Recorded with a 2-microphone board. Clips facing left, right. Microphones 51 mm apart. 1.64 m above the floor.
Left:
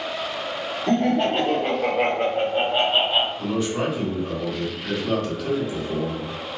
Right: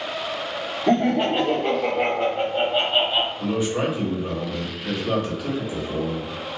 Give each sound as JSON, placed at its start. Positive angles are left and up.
{"t": 0.9, "sound": "laughter", "side_deg": -20, "distance_m": 0.7}
{"t": 3.4, "sound": "a man speaking", "side_deg": -10, "distance_m": 1.2}